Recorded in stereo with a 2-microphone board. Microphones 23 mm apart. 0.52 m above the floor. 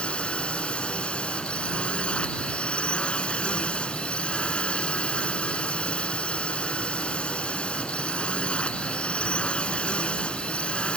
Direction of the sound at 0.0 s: 50° left (ahead or behind).